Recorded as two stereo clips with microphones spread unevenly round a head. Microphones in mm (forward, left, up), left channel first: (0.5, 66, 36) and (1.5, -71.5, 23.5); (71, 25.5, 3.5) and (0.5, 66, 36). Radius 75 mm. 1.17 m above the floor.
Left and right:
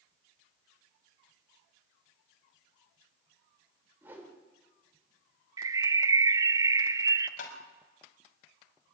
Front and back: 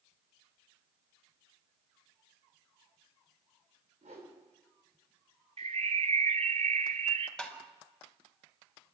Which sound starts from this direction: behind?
A whoosh, at 4.0 s.